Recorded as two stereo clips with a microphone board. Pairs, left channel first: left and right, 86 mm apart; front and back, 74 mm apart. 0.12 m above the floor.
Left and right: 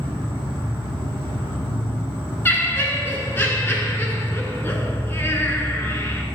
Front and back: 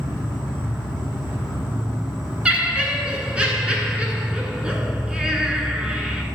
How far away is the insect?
About 3.5 m.